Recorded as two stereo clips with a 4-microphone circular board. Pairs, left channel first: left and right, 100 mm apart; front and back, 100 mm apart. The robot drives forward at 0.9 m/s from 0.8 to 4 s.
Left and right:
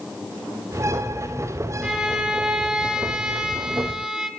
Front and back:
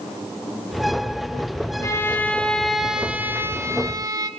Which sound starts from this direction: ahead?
A violin, at 1.8 s.